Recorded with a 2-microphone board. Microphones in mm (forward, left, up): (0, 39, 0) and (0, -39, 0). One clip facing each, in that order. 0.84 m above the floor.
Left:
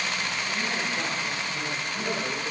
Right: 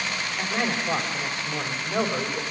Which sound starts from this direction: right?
A man speaking, at 0.4 s.